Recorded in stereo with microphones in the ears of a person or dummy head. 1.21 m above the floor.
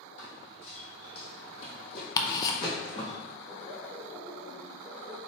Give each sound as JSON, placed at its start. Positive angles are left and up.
{"t": 0.2, "sound": "running footsteps", "side_deg": 40, "distance_m": 1.7}
{"t": 2.2, "sound": "ticking", "side_deg": 20, "distance_m": 0.5}
{"t": 3.5, "sound": "laughter", "side_deg": 0, "distance_m": 0.5}